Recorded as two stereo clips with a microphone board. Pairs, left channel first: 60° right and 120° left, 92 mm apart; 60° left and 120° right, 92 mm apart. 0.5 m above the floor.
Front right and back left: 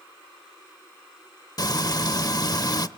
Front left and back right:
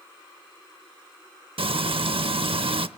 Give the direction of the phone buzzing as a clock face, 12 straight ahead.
I don't hear a phone buzzing.